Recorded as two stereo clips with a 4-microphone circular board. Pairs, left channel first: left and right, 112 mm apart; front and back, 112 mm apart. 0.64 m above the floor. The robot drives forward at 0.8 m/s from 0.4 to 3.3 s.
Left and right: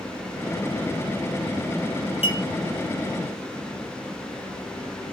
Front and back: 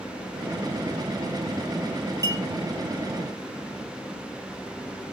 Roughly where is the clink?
Behind left.